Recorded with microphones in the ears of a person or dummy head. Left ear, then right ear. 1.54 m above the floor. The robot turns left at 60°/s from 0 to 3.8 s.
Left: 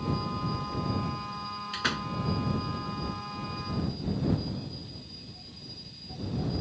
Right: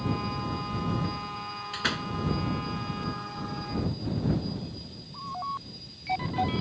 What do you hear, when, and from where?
1.7 s a door slam: 5° left (ahead or behind); by 2.1 s 20° right (ahead or behind)